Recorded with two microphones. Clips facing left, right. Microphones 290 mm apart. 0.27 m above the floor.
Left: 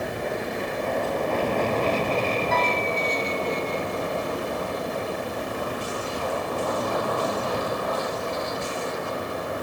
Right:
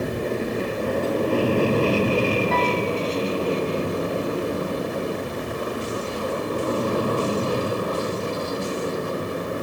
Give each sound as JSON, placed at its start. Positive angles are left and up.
{"t": 0.0, "sound": "an aircraft", "side_deg": -35}
{"t": 2.5, "sound": "a piano", "side_deg": 0}